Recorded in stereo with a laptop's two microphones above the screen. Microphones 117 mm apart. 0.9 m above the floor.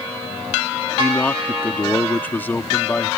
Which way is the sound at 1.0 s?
15° left (ahead or behind).